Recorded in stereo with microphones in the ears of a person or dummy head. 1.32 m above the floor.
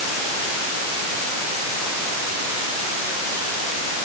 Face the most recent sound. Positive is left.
No sound to turn to.